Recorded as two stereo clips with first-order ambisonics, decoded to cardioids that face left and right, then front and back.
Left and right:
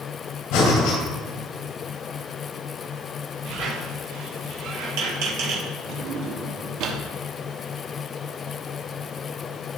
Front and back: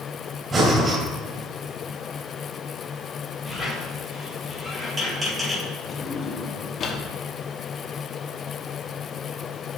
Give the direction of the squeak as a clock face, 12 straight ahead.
3 o'clock.